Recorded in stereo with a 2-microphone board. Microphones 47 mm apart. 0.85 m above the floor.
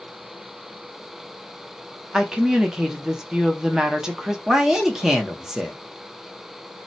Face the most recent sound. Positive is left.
turn(degrees=-10)  # may be behind; listen again after turning